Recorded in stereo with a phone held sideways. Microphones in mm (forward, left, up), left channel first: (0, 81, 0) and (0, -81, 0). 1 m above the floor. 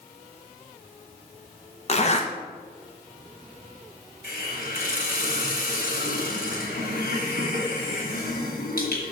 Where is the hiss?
75° left (ahead or behind), 2.5 m.